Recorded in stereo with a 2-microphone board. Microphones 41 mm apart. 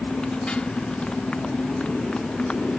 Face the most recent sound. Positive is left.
turn(degrees=30)  # may be behind; listen again after turning